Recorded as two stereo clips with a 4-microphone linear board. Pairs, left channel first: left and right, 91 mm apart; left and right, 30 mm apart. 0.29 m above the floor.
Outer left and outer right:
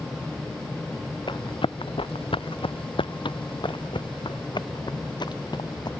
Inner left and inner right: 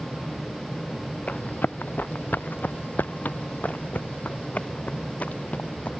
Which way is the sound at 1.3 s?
60° left (ahead or behind).